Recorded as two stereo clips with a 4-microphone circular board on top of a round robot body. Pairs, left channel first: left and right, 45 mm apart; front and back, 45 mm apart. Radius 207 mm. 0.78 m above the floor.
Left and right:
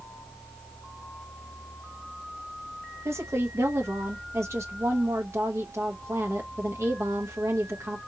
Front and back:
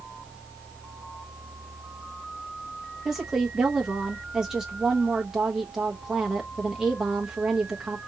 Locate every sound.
3.0 s a woman speaking: 100° right, 1.1 m